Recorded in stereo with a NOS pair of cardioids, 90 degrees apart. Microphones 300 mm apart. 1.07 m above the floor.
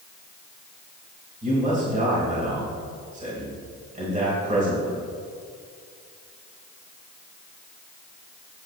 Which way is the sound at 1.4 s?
25° right.